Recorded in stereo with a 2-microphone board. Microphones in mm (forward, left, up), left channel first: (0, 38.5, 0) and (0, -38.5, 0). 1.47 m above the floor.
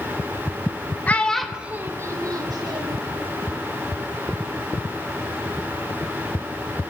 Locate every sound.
1.1 s a child speaking: 20° left (ahead or behind), 0.8 m; by 3.0 s 65° right (ahead or behind), 1.4 m